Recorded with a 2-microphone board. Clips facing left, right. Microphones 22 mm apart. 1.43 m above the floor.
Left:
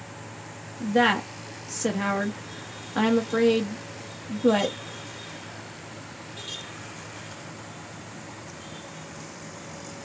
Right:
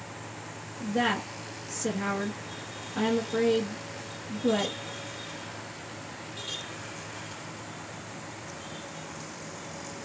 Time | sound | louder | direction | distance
0.8 | a woman speaking | left 6 dB | 55° left (ahead or behind) | 1.1 m